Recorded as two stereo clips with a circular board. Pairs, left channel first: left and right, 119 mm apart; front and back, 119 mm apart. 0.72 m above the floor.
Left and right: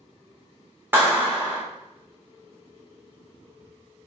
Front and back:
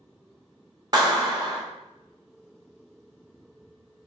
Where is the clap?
150° right, 0.8 m.